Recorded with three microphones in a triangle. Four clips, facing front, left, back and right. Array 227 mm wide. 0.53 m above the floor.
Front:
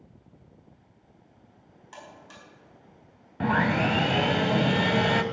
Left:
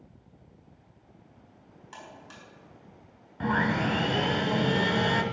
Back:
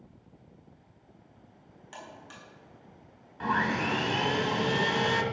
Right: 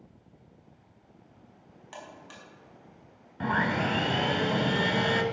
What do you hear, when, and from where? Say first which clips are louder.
1.9 s a buzzer: right 1 dB, even; 120° right, 4.5 m
3.4 s sawing: left 1 dB, front 4 dB; straight ahead, 1.1 m